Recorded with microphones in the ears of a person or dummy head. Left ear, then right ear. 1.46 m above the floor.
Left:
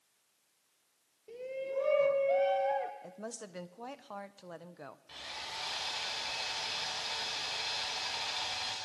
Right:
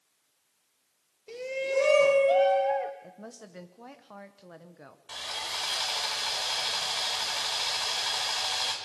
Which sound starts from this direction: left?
A woman speaking, at 3.0 s.